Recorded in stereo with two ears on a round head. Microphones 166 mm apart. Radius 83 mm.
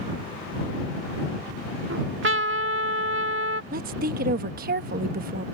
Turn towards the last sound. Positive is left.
turn(degrees=-50)  # may be behind; listen again after turning